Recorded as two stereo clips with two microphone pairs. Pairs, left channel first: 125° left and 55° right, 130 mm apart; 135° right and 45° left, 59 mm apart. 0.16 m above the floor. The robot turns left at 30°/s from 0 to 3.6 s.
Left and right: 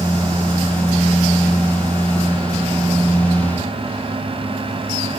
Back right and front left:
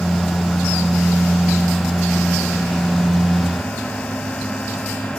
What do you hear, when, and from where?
Only background noise.